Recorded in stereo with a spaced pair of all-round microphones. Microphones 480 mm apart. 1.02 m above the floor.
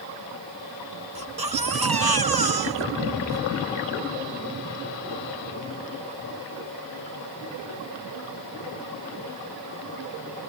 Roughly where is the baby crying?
Right.